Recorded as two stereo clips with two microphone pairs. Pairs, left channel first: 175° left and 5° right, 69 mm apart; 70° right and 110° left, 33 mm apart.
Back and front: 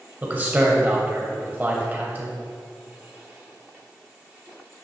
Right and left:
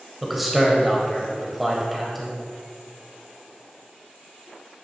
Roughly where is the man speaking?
Ahead left.